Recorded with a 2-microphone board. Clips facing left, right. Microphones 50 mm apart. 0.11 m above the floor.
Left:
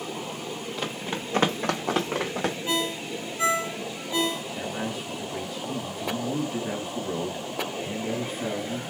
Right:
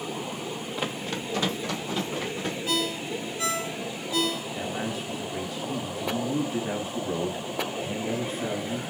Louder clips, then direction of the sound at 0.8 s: Right 1 dB; 10° right (ahead or behind).